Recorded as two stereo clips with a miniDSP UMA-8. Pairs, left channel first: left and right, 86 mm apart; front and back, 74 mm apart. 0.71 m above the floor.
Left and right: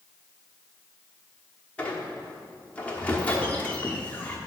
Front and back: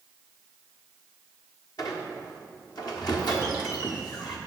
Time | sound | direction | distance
1.8 | a squeak | 15° left | 1.1 m